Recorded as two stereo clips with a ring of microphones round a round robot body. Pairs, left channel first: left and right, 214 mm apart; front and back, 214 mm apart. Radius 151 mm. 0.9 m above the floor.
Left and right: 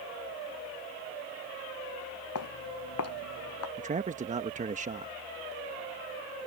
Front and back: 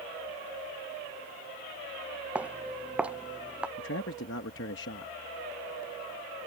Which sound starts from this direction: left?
Footsteps, at 2.4 s.